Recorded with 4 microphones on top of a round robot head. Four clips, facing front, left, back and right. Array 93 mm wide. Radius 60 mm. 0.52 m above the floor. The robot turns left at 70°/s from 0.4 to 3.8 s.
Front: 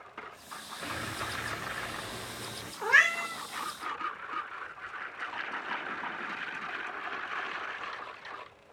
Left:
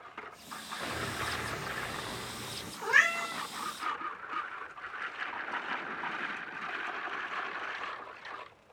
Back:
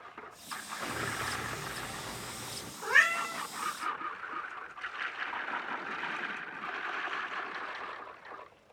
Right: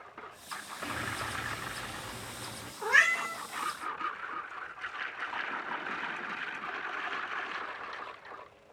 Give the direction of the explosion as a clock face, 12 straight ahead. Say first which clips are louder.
Even, back 1 dB; 8 o'clock.